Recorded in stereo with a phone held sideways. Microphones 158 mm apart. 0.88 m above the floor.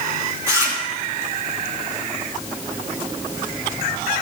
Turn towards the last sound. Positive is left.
turn(degrees=-20)  # may be behind; listen again after turning